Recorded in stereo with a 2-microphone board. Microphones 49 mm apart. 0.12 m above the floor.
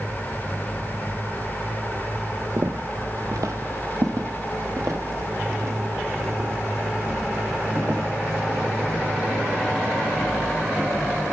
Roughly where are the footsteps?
Right.